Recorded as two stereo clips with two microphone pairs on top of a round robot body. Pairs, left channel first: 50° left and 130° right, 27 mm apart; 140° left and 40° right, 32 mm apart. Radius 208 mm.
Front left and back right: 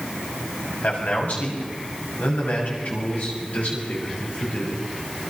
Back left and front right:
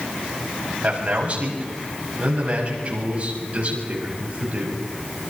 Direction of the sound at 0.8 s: 20° left.